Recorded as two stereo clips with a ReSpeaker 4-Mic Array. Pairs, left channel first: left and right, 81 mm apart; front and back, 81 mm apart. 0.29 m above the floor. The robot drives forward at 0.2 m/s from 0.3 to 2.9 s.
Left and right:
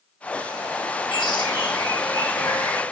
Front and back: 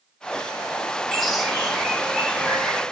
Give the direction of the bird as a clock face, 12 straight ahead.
9 o'clock.